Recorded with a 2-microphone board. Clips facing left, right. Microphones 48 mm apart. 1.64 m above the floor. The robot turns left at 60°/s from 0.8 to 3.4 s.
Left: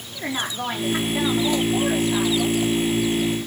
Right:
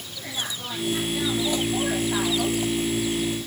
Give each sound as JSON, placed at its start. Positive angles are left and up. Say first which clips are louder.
{"t": 0.1, "sound": "a woman speaking", "louder": "left 6 dB", "azimuth_deg": 65, "distance_m": 4.0}